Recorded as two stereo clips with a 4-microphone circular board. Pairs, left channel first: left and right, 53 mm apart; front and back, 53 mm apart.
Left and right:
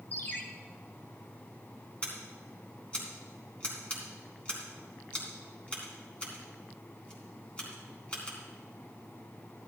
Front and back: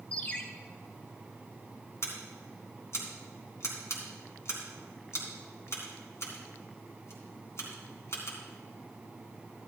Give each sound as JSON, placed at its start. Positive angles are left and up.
{"t": 0.1, "sound": "a ringtone", "azimuth_deg": 60, "distance_m": 1.1}
{"t": 2.0, "sound": "scissors", "azimuth_deg": 25, "distance_m": 3.0}